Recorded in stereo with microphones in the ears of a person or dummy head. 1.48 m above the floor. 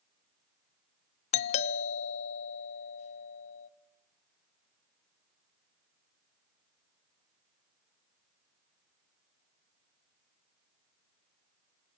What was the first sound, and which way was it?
A doorbell, 40° left (ahead or behind).